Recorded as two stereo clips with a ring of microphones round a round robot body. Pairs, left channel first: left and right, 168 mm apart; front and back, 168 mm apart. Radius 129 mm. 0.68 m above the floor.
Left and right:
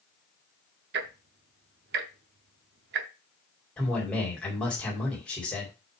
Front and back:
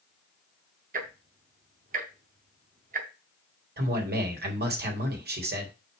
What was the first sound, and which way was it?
Ticking, 125° right.